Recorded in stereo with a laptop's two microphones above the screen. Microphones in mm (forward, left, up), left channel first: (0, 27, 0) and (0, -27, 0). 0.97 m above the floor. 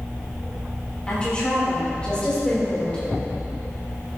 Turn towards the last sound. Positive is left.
turn(degrees=20)  # may be behind; listen again after turning